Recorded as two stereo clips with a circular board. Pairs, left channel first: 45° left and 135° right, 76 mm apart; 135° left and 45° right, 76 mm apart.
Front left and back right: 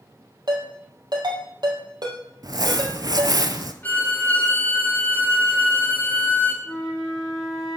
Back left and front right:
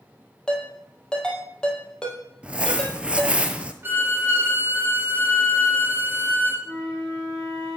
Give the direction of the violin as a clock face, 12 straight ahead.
12 o'clock.